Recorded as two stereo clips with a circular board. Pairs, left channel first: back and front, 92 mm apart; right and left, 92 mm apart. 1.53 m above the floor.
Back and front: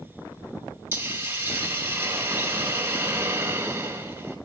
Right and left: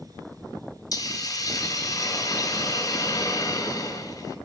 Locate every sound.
0.9 s a hiss: 60° right, 2 m